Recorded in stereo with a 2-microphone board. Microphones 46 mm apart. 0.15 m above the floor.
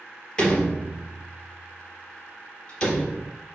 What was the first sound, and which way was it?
A door slam, 15° left (ahead or behind).